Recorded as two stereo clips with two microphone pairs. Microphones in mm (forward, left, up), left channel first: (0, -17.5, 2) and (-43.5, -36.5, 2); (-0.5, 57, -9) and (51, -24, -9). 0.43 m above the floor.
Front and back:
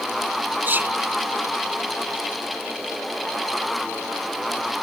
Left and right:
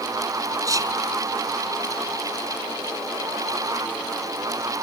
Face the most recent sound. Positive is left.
turn(degrees=-110)